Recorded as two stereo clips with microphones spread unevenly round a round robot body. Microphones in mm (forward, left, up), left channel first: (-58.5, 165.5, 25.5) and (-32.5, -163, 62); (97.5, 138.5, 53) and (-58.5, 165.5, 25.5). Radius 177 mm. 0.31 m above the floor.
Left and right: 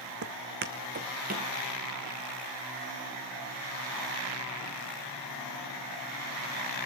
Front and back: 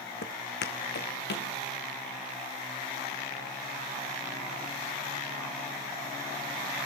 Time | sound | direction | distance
0.2 | footsteps | 35° right | 1.0 m